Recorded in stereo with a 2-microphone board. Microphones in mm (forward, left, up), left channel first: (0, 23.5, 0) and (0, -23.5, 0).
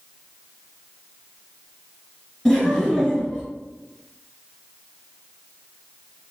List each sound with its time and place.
2.5 s laughter: 10° left (ahead or behind), 1.4 m